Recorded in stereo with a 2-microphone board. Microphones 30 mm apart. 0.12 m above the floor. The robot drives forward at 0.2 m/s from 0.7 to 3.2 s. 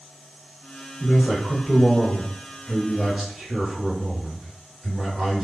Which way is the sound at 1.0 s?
5° right (ahead or behind).